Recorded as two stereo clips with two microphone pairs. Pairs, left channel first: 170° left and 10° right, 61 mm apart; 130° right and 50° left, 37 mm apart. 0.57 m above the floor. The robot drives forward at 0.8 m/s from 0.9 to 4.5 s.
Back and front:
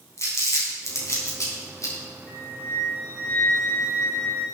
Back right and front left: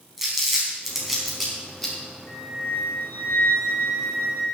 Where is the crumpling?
135° left, 3.5 m; by 1.9 s 140° left, 4 m.